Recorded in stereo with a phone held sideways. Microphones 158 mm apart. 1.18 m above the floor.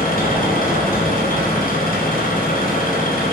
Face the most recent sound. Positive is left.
turn(degrees=65)  # may be behind; listen again after turning